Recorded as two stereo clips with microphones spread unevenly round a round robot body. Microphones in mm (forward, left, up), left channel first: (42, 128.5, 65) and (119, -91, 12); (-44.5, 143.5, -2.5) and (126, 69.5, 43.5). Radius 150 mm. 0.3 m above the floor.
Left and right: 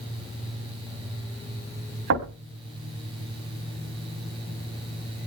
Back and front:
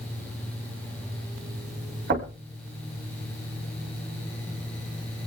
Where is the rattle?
No rattle in this recording.